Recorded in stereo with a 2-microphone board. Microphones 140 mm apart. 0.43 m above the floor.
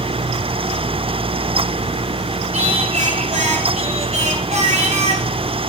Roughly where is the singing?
Right.